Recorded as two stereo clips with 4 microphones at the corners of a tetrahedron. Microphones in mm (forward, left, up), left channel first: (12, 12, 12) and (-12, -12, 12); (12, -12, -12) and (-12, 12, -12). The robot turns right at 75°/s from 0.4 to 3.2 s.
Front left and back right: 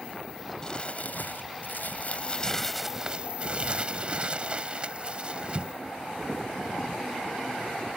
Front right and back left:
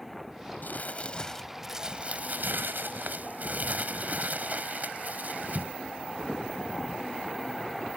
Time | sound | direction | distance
0.6 | crumpling | 25° right | ?